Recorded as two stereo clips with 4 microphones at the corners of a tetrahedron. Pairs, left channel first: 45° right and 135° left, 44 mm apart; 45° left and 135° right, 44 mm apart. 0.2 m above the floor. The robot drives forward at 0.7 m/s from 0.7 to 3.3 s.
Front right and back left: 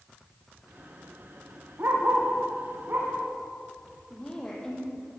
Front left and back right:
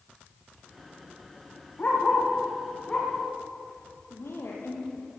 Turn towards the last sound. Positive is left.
turn(degrees=30)